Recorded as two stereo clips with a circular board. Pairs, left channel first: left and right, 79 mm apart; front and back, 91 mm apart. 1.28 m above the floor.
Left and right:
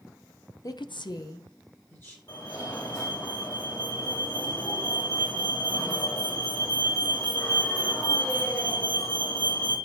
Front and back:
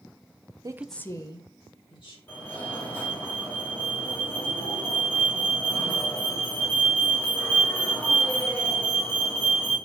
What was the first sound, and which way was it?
A woman speaking, 135° left.